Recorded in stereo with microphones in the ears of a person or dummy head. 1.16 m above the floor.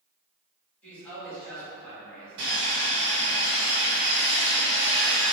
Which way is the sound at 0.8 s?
5° left (ahead or behind).